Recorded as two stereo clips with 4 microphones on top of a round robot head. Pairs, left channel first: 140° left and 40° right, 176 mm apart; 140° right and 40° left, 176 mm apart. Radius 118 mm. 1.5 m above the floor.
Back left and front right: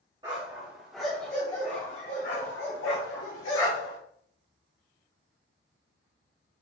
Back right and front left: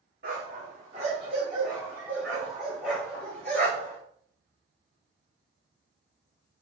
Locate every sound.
0.2 s a dog barking: 20° left, 1.3 m; by 4.0 s 145° left, 1.9 m